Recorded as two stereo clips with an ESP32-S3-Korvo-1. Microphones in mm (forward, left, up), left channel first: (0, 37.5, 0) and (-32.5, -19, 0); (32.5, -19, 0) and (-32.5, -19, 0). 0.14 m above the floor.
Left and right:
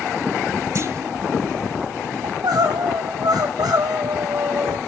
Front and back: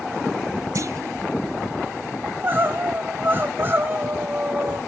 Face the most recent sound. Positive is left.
turn(degrees=-120)